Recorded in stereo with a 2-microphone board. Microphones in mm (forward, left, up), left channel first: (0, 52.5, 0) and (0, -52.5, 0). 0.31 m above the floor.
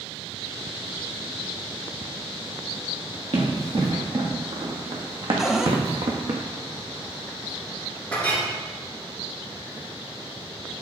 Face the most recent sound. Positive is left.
turn(degrees=15)  # may be behind; listen again after turning